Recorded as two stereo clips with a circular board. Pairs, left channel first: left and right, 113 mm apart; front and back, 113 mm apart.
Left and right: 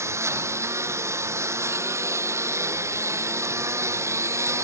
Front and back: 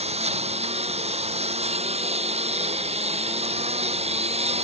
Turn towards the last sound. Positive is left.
turn(degrees=-155)